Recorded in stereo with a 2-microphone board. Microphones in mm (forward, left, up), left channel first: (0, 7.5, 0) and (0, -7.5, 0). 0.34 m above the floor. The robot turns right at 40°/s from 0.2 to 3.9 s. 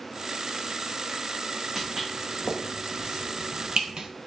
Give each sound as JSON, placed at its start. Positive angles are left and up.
{"t": 1.8, "sound": "footsteps", "side_deg": 5, "distance_m": 1.9}